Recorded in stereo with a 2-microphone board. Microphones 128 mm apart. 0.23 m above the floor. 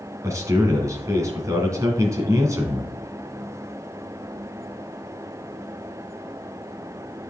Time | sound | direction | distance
0.2 | a man speaking | 25° right (ahead or behind) | 1.8 m